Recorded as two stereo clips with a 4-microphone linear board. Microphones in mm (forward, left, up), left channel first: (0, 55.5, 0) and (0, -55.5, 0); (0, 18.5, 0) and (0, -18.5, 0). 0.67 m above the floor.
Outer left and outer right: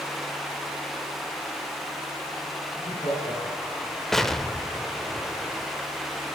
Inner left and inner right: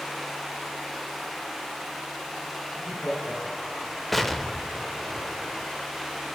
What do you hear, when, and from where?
2.7 s laughter: 75° left (ahead or behind), 5 m; by 4.0 s 70° left (ahead or behind), 3.5 m
4.1 s an explosion: 5° left (ahead or behind), 0.5 m